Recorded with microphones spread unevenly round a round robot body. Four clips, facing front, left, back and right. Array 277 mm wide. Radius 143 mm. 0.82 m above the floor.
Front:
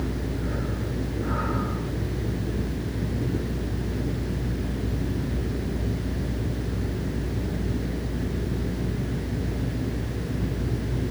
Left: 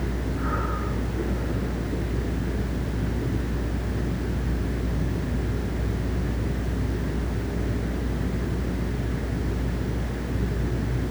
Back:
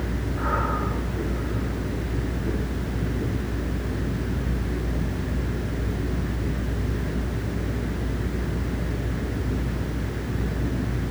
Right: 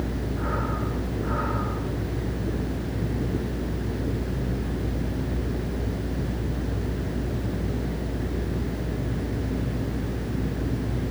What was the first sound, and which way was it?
Only background noise.